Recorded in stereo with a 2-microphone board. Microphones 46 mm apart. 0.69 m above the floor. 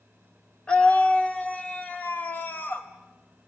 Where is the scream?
25° left (ahead or behind), 1.7 m; by 2.9 s 45° left (ahead or behind), 3.5 m.